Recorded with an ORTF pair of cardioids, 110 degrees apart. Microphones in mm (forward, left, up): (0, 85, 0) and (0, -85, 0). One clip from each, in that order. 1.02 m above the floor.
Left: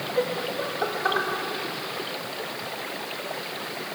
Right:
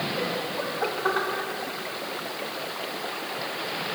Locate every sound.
0.2 s laughter: 30° left, 1.5 m; by 1.3 s 5° left, 1.5 m